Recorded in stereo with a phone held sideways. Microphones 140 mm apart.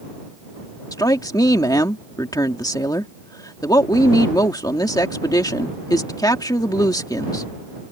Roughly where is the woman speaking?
Left.